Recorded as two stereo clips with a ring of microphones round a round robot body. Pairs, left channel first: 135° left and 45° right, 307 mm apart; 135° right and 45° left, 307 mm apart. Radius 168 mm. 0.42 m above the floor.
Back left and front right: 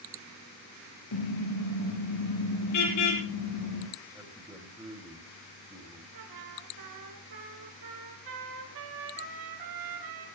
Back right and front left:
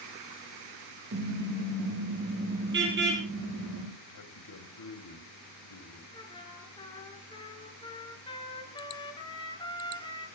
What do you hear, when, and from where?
1.1 s a car horn: 105° left, 5 m; by 3.9 s 100° left, 8 m
4.1 s a man speaking: 125° right, 3 m
6.1 s a trumpet: 60° right, 4 m